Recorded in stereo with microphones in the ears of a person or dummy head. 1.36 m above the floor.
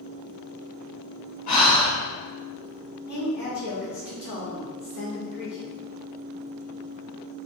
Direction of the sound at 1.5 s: 40° left (ahead or behind).